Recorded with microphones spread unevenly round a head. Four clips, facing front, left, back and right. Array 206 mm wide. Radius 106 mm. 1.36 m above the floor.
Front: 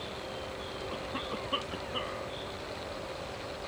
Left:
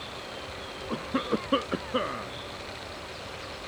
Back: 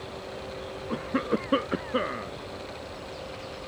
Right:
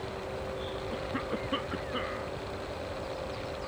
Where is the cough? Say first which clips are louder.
Left 8 dB, back 12 dB; 160° left.